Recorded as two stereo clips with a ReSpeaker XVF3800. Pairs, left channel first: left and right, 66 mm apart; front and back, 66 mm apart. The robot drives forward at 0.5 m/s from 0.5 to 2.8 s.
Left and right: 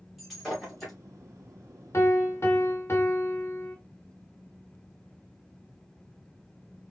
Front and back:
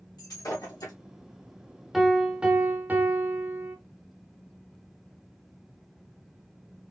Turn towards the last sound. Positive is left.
turn(degrees=125)